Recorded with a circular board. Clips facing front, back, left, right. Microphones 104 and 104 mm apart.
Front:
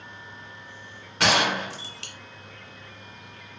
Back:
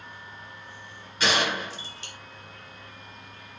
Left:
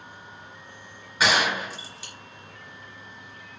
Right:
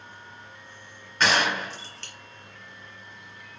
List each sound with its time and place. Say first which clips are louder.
0.0 s an insect: even, left 1 dB; 120° left, 0.9 m
1.2 s a gunshot: front 3 dB, even; 10° left, 0.9 m